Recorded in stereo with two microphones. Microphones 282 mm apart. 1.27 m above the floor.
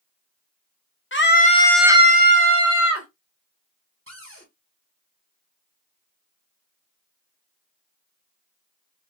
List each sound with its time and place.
1.1 s a scream: 45° left (ahead or behind), 1.0 m; by 3.1 s 65° right (ahead or behind), 1.4 m
4.1 s a cupboard door: 50° right (ahead or behind), 4 m